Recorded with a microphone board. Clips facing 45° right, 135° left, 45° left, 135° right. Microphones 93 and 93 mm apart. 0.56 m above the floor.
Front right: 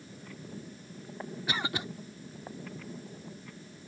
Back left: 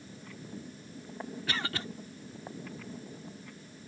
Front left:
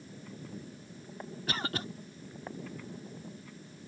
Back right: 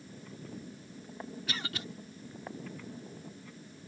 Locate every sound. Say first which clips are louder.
1.5 s a cough: front right 2 dB, front left 7 dB; 20° left